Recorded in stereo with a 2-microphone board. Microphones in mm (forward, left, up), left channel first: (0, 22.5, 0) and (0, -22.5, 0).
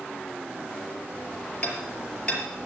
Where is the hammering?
25° left (ahead or behind), 5 m.